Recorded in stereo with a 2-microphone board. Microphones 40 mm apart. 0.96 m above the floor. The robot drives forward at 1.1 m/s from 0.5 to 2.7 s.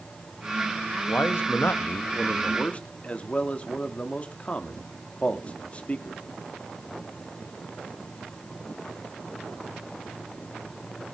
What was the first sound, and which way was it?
A man speaking, 65° left (ahead or behind).